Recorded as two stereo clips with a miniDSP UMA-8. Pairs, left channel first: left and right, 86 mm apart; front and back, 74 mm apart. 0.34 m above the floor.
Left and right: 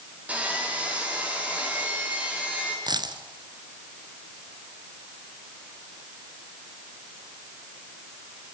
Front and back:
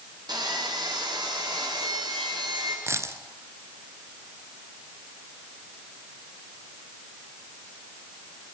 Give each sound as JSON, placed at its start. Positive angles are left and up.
{"t": 0.3, "sound": "sawing", "azimuth_deg": -165, "distance_m": 5.5}
{"t": 2.9, "sound": "a dropped coin", "azimuth_deg": -125, "distance_m": 1.4}